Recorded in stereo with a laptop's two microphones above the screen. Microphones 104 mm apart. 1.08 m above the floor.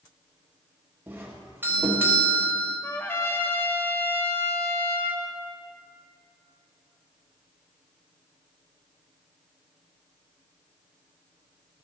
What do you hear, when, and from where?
1.1 s a doorbell: 20° right (ahead or behind), 1.0 m
2.8 s a trumpet: 25° left (ahead or behind), 0.6 m